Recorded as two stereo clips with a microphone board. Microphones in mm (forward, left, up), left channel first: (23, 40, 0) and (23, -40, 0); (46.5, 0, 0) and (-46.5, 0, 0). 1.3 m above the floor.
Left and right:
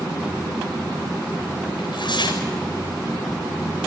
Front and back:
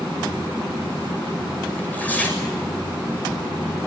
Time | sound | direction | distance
1.8 | tearing paper | 75° left | 6.5 m